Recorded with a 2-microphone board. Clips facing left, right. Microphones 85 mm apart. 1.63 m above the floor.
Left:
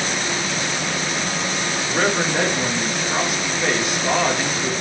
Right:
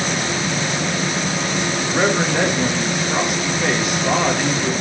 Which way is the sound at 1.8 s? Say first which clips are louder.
Right 2 dB; 5° right (ahead or behind).